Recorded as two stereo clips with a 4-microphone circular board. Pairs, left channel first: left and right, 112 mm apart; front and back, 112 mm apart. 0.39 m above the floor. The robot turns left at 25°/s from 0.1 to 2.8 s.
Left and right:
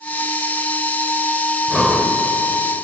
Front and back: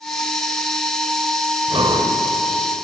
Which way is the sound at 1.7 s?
175° right.